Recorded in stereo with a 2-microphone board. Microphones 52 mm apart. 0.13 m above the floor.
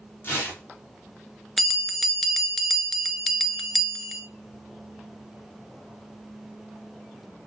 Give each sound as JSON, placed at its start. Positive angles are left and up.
{"t": 0.2, "sound": "tearing paper", "side_deg": 35, "distance_m": 3.5}
{"t": 1.6, "sound": "a bell", "side_deg": 5, "distance_m": 0.5}